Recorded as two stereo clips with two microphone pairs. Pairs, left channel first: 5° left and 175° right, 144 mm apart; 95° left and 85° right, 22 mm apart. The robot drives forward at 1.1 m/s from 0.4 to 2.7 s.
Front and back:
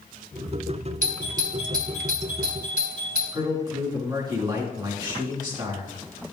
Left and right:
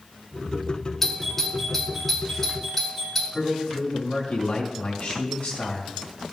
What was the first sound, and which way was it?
A doorbell, 175° left.